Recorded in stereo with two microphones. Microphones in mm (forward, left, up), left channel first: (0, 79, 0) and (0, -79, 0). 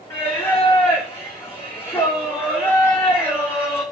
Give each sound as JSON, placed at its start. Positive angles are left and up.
{"t": 0.1, "sound": "singing", "side_deg": 15, "distance_m": 2.5}